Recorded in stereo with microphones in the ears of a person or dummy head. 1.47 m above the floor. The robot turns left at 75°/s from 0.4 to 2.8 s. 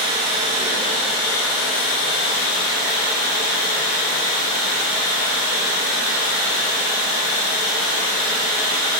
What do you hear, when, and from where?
0.0 s running water: 150° right, 0.9 m; by 9.0 s 30° left, 0.9 m